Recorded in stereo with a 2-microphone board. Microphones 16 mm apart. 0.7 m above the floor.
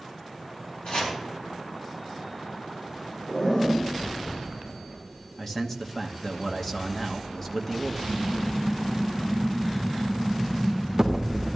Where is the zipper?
45° left (ahead or behind), 6 m.